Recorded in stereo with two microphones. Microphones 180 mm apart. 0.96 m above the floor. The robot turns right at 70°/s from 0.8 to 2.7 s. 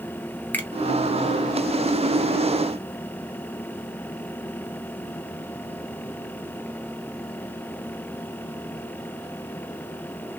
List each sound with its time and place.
0.5 s a finger snap: 10° left (ahead or behind), 0.9 m